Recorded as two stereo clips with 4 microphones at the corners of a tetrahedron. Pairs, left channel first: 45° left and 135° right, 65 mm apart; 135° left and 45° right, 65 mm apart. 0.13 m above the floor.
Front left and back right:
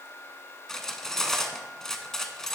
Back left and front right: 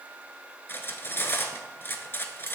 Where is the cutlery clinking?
125° left, 0.8 m.